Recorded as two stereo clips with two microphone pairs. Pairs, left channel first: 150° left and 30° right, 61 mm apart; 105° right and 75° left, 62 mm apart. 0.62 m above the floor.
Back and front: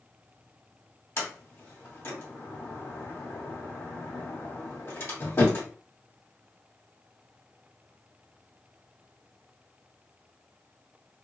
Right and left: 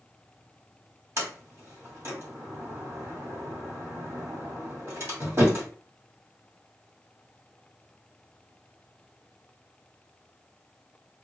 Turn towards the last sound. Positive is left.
turn(degrees=110)